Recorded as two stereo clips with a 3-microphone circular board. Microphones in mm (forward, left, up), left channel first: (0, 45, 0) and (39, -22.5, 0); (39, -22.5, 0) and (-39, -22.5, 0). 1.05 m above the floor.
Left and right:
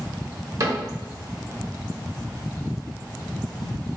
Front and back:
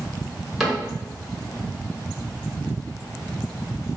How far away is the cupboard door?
About 1.3 m.